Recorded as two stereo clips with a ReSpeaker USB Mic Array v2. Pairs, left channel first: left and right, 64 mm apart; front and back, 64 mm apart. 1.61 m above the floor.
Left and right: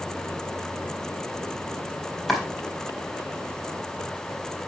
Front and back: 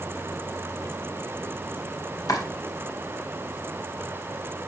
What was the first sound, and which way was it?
Chopping, 5° left.